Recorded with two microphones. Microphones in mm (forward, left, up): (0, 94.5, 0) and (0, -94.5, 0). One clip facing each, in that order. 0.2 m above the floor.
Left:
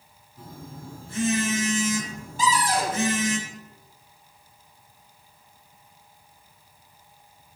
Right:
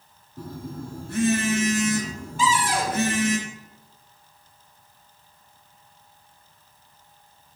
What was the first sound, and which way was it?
A phone buzzing, 65° right (ahead or behind).